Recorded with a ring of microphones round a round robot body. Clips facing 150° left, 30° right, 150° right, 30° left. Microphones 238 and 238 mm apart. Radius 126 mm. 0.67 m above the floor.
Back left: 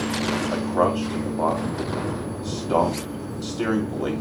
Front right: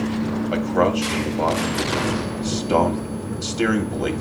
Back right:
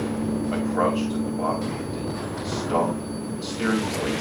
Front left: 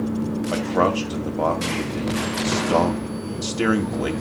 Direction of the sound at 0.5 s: 25° left.